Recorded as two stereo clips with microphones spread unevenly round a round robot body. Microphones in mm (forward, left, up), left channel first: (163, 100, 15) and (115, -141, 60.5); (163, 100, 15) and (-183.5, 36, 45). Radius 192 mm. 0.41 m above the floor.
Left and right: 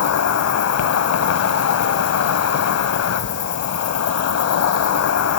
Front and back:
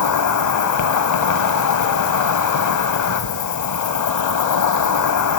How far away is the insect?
About 0.8 m.